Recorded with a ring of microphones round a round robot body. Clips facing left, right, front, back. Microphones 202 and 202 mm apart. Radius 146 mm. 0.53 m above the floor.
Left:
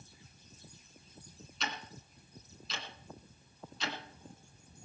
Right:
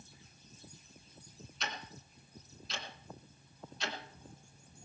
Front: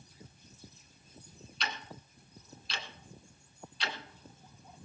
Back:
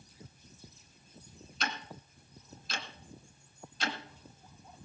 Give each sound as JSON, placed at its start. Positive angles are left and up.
{"t": 1.6, "sound": "ticking", "azimuth_deg": 135, "distance_m": 2.0}